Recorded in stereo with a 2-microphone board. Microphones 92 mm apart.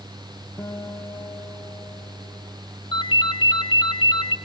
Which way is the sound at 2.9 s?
60° left (ahead or behind).